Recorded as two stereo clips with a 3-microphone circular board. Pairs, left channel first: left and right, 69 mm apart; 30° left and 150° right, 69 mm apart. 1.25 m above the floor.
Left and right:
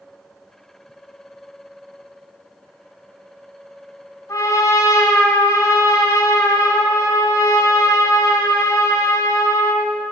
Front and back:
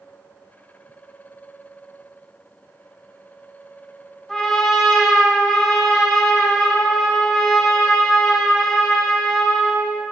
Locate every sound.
4.3 s a trumpet: 120° left, 2.5 m